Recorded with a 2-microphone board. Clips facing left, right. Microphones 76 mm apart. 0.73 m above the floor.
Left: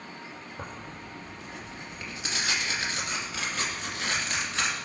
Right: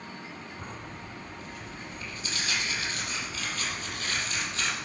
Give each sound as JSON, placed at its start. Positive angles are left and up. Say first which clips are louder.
{"t": 0.6, "sound": "tearing paper", "louder": "left 1 dB", "side_deg": 75, "distance_m": 2.0}